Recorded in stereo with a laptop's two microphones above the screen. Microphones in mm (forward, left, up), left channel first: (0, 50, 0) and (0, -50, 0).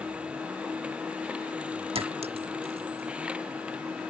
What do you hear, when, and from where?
0.0 s a machine running: 10° right (ahead or behind)
1.9 s a clink: 80° right